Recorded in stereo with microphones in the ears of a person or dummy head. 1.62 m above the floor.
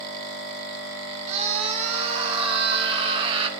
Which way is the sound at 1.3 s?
35° right (ahead or behind).